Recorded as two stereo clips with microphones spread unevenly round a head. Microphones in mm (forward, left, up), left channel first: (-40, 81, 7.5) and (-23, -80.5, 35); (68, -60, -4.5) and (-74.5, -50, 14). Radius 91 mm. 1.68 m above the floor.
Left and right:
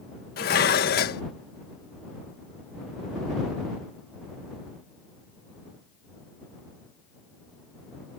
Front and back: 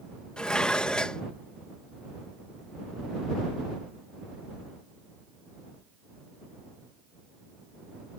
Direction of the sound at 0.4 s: 90° left.